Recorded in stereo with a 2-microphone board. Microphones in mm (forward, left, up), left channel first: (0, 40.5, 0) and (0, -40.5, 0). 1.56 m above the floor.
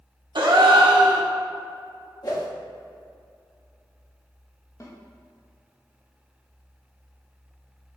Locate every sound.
0.3 s a gasp: 65° right (ahead or behind), 0.9 m
2.2 s a whoosh: 50° left (ahead or behind), 1.6 m
4.8 s a snare drum: 35° left (ahead or behind), 1.1 m